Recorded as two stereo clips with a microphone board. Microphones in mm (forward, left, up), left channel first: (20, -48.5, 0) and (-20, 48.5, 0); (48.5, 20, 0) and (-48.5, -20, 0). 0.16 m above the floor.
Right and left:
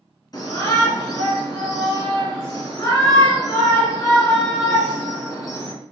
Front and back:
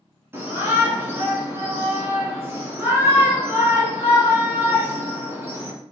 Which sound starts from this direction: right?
A shout, at 0.3 s.